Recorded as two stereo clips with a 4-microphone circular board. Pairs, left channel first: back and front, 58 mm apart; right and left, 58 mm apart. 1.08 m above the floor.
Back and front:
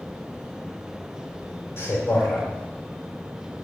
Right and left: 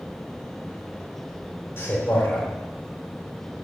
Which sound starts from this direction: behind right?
A man speaking, at 1.8 s.